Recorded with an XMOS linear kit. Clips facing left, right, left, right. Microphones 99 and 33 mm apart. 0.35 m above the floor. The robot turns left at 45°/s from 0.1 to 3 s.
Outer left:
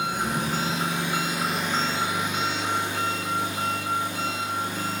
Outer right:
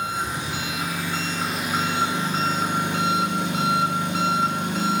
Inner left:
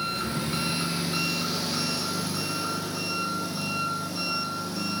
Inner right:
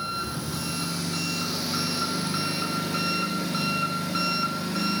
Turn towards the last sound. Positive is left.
turn(degrees=-65)